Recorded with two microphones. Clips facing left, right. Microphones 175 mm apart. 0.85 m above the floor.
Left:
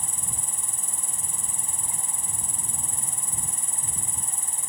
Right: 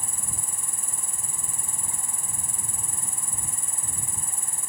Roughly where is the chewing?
I don't hear chewing.